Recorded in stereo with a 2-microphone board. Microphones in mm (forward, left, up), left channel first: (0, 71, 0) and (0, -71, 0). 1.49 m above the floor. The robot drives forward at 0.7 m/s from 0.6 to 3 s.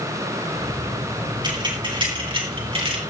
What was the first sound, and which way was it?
Keys jangling, 30° right (ahead or behind).